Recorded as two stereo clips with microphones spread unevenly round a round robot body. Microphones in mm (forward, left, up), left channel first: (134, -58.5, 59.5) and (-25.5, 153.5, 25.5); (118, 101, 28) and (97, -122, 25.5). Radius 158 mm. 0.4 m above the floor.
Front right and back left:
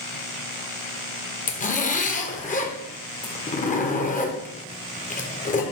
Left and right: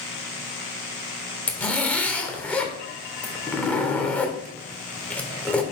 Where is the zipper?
5° left, 1.4 m.